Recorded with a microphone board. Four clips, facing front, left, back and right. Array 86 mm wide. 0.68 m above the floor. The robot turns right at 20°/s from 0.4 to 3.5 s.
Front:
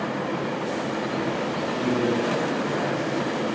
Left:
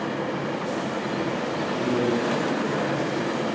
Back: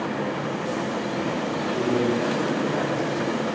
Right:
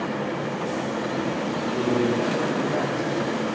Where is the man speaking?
140° right, 3 m; by 3.5 s 105° right, 3 m.